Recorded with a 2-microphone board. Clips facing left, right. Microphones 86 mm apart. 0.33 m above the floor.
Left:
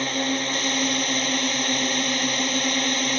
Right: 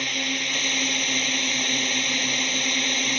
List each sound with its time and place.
0.0 s a drone: 35° left (ahead or behind)